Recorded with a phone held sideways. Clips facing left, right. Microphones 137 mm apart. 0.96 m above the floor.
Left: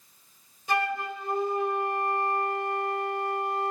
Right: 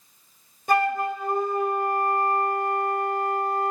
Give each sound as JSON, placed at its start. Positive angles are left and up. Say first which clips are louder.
{"t": 0.7, "sound": "a flute", "louder": "right 6 dB", "side_deg": -55, "distance_m": 3.5}